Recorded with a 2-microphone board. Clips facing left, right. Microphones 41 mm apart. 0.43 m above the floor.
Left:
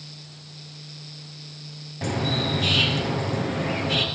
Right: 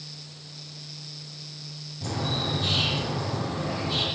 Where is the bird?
65° left (ahead or behind), 6.5 m.